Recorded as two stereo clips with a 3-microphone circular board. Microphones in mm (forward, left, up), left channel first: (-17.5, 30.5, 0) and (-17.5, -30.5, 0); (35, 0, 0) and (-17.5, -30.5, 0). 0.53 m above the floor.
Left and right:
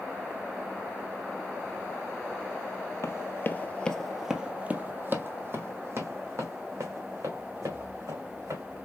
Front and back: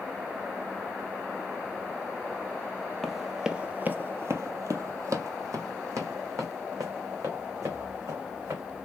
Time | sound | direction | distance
3.0 | running footsteps | 115° left | 0.9 m